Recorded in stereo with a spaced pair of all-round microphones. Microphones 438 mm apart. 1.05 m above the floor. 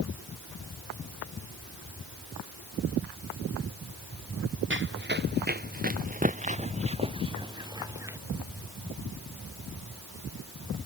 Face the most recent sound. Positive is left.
turn(degrees=-5)  # may be behind; listen again after turning